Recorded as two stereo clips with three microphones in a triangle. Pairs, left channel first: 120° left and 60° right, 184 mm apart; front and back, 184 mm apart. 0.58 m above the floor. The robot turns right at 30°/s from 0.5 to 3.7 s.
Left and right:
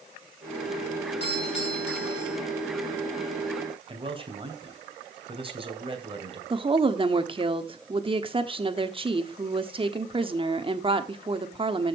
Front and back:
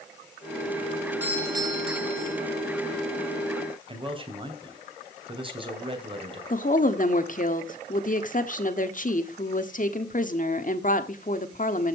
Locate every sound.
1.2 s a doorbell: 100° left, 4.5 m; by 2.4 s 135° left, 4.5 m
3.9 s a man speaking: 120° right, 3 m
6.5 s a woman speaking: 10° right, 1.3 m